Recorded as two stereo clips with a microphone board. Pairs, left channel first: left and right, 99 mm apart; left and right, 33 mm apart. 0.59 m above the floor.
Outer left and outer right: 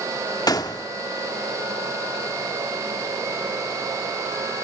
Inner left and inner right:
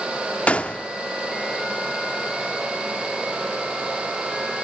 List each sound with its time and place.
0.5 s a gunshot: 40° left (ahead or behind), 1.2 m